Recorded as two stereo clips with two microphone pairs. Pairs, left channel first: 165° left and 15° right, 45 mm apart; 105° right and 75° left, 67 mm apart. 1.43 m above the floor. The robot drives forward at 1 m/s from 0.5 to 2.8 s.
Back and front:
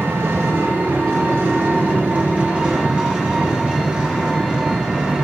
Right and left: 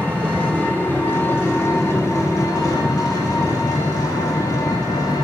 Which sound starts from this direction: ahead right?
An engine running, at 0.0 s.